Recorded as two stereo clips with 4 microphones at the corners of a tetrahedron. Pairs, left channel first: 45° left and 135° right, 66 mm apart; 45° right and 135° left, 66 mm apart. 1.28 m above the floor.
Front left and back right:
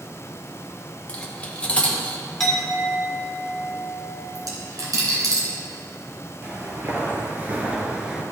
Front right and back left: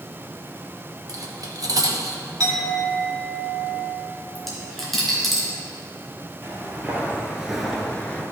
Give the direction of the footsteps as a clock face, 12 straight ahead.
6 o'clock.